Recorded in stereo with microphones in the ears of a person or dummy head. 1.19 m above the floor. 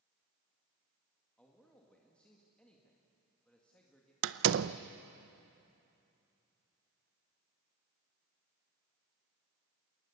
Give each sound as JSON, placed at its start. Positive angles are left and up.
{"t": 1.4, "sound": "a man speaking", "side_deg": 5, "distance_m": 2.0}
{"t": 4.2, "sound": "a door slam", "side_deg": -70, "distance_m": 0.6}